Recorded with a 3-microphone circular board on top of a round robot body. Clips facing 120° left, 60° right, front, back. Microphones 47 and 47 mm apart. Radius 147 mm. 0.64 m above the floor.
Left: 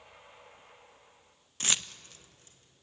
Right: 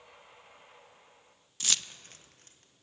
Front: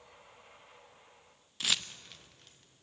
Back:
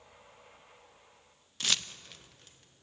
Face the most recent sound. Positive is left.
turn(degrees=-90)